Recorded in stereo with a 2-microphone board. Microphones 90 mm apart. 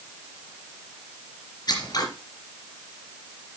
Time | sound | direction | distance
1.7 | scissors | 50° left (ahead or behind) | 3 m